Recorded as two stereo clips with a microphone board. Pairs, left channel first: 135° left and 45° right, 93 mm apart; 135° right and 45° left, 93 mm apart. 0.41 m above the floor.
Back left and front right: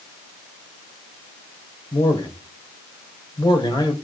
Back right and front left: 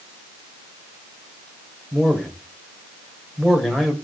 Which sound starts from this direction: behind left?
A man speaking, at 1.9 s.